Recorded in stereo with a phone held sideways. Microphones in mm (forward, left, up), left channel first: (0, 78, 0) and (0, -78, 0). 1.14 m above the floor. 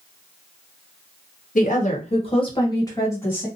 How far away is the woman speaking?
About 1.0 m.